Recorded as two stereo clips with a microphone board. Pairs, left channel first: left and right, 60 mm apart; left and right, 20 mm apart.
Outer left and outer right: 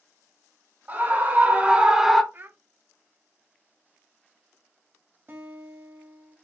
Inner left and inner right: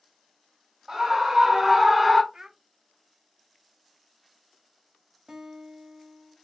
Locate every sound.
0.9 s a scream: 30° right (ahead or behind), 2 m; by 2.2 s centre (ahead or behind), 0.9 m
2.3 s a child speaking: 35° right (ahead or behind), 0.6 m
5.3 s a guitar: 40° right (ahead or behind), 1.5 m